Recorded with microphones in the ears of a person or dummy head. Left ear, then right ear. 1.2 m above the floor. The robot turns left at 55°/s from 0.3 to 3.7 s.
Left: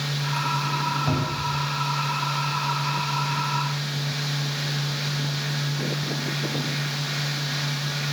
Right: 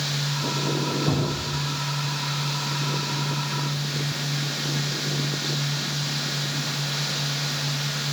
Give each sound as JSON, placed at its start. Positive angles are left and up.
{"t": 1.1, "sound": "a cupboard door", "side_deg": 75, "distance_m": 8.0}